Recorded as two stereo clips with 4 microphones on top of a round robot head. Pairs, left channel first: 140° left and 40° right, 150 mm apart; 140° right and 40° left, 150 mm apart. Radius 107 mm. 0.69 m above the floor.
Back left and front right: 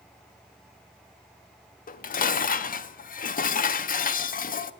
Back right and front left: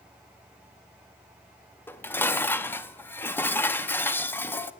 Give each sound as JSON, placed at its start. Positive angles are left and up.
{"t": 1.9, "sound": "dishes clattering", "azimuth_deg": 150, "distance_m": 0.7}